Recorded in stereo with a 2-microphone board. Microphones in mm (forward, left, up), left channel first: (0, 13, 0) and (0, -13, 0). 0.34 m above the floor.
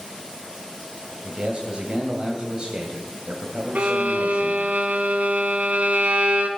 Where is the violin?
75° right (ahead or behind), 1.7 m.